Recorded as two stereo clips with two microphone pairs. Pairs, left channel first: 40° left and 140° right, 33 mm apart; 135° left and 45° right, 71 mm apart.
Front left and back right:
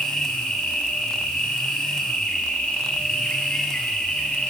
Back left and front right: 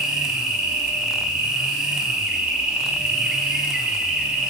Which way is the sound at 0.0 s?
25° left.